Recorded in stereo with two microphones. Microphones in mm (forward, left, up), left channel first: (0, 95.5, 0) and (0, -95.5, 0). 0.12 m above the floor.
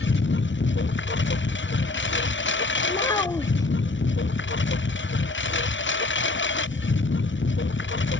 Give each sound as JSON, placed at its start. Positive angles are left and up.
{"t": 0.0, "sound": "a lawn mower", "side_deg": 75}
{"t": 2.9, "sound": "a child speaking", "side_deg": 20}